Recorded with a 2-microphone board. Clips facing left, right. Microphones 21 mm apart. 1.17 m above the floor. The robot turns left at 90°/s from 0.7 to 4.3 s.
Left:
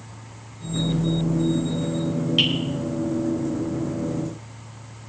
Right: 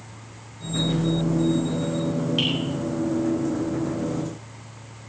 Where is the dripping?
20° left (ahead or behind), 5 m; by 2.5 s 10° left (ahead or behind), 5 m.